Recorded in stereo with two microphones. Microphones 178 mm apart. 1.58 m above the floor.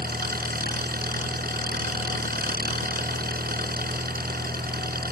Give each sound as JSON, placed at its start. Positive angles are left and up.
{"t": 0.0, "sound": "an engine running", "side_deg": -60}